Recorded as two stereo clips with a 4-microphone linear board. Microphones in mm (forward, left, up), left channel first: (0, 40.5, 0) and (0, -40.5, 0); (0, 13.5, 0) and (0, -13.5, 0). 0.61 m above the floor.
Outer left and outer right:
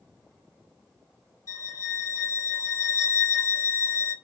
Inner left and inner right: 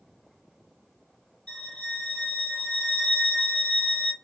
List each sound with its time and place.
1.5 s a violin: 45° left (ahead or behind), 1.7 m